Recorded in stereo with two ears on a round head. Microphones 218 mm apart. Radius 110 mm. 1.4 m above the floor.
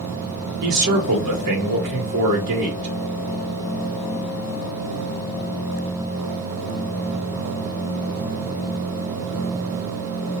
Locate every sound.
0.6 s a man speaking: 80° right, 1.9 m